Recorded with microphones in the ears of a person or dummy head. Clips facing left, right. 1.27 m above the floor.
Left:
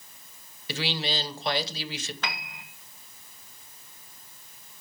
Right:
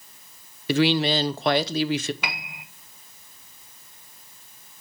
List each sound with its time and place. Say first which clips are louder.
0.7 s a woman speaking: right 11 dB; 50° right (ahead or behind), 0.7 m
2.2 s a piano: right 1 dB; 10° right (ahead or behind), 0.8 m